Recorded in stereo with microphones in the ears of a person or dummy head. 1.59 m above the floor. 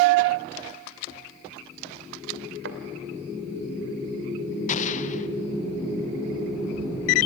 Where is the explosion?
40° left (ahead or behind), 1.1 m.